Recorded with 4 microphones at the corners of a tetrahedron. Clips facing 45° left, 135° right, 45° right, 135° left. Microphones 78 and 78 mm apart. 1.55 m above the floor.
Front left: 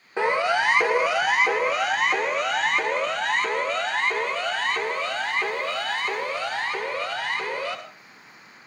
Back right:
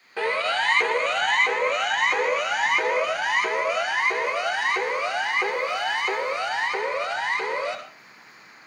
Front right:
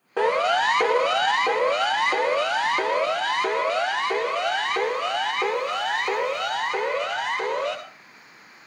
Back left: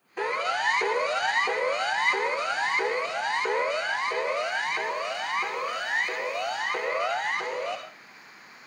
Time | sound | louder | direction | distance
0.2 | a siren | front left 3 dB, front right 7 dB | 25° right | 2.5 m